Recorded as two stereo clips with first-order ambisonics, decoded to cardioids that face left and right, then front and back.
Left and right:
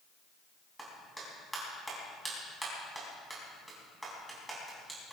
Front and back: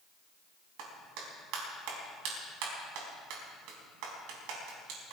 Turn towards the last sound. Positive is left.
turn(degrees=180)